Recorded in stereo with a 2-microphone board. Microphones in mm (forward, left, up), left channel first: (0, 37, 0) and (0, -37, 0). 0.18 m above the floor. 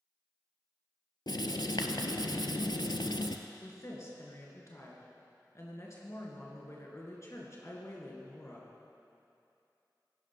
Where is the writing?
80° left, 0.6 m.